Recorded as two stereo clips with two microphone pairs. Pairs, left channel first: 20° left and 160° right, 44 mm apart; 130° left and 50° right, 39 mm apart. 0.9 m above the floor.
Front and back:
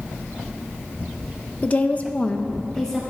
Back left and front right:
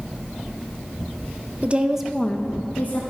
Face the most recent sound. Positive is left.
turn(degrees=100)